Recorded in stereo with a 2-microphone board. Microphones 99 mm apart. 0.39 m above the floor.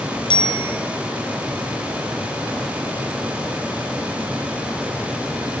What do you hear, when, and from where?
0.3 s a bicycle bell: 60° left (ahead or behind), 2.5 m